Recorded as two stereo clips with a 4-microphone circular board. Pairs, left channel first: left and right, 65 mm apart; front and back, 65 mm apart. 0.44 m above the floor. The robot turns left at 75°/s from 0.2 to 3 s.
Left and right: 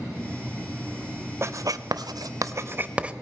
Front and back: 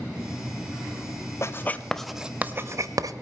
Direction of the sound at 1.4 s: 40° right.